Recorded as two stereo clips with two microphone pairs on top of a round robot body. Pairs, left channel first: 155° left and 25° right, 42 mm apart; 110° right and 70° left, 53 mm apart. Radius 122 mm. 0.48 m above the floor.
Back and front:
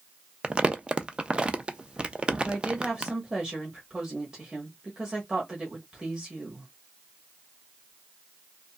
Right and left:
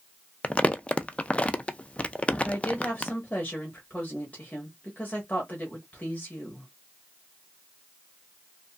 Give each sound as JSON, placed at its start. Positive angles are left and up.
{"t": 0.4, "sound": "crumpling", "azimuth_deg": -105, "distance_m": 0.5}
{"t": 2.4, "sound": "a woman speaking", "azimuth_deg": -110, "distance_m": 1.3}